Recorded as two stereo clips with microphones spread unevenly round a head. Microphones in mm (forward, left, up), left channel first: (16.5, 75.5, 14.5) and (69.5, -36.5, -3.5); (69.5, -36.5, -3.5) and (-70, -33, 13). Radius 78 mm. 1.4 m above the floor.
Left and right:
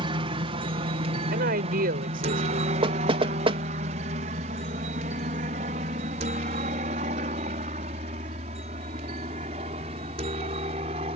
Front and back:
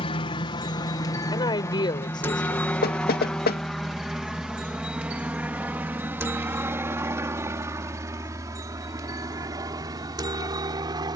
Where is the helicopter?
35° right; by 11.2 s 120° right.